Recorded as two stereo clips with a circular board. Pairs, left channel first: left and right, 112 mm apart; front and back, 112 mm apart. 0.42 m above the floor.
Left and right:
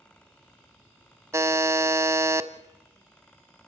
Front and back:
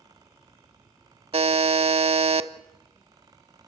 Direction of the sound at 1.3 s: 155° right.